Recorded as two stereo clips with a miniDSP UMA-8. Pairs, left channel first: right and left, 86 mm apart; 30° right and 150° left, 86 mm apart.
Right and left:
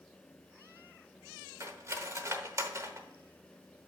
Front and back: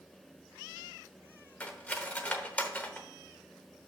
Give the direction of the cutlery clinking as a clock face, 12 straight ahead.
11 o'clock.